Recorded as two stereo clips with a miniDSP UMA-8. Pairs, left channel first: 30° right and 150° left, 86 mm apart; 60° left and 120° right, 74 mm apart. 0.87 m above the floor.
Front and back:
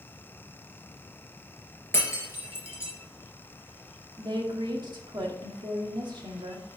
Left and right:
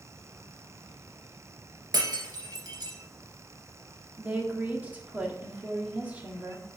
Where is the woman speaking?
170° left, 1.9 m.